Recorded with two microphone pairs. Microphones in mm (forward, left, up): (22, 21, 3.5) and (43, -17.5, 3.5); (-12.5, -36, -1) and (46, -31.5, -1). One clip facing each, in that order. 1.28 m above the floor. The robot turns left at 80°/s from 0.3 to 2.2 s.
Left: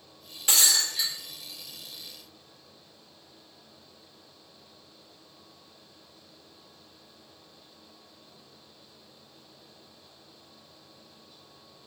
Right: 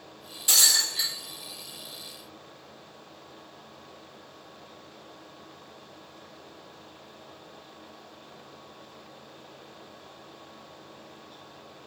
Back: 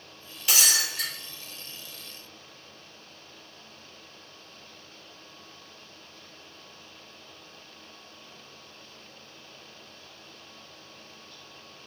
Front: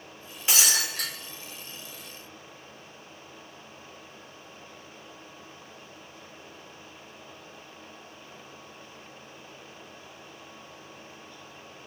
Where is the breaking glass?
65° left, 1.0 m; by 1.1 s 15° left, 1.0 m.